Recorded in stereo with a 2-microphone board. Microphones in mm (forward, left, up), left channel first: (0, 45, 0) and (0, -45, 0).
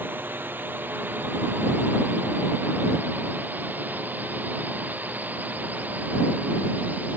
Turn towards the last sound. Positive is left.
turn(degrees=-20)  # may be behind; listen again after turning